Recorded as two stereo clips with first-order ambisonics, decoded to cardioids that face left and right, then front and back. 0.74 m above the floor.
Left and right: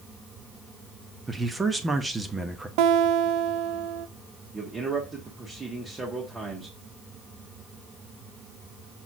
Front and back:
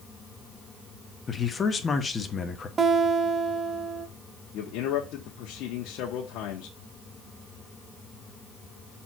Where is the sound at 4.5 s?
20° right, 1.2 m.